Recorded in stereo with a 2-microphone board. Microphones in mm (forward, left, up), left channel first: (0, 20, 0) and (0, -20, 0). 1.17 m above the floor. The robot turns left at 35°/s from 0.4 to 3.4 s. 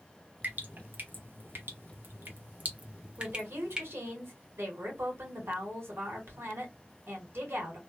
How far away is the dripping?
About 0.9 m.